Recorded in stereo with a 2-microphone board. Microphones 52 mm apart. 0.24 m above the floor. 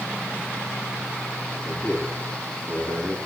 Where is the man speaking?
60° left (ahead or behind), 5.5 m.